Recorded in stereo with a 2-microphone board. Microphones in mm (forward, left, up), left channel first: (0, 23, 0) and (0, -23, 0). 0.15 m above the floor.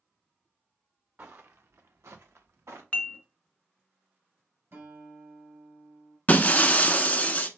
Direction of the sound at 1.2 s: 45° right (ahead or behind).